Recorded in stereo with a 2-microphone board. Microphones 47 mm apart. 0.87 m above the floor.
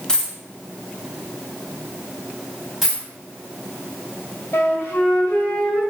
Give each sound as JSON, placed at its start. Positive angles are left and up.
{"t": 0.1, "sound": "a dropped coin", "side_deg": 15, "distance_m": 0.7}
{"t": 2.8, "sound": "a dropped coin", "side_deg": -5, "distance_m": 1.9}
{"t": 4.5, "sound": "a flute", "side_deg": 70, "distance_m": 1.3}